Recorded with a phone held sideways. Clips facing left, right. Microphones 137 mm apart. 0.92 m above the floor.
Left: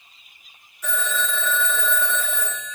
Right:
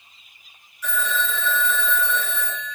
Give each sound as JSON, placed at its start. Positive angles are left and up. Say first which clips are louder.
{"t": 0.8, "sound": "a phone ringing", "louder": "right 1 dB", "side_deg": 40, "distance_m": 1.9}